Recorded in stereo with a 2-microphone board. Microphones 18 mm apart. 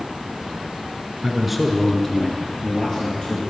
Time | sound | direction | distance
1.2 | a man speaking | 15° right (ahead or behind) | 1.2 m